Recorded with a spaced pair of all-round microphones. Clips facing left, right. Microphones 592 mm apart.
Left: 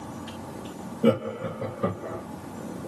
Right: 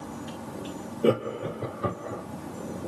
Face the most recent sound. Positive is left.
turn(degrees=75)  # may be behind; listen again after turning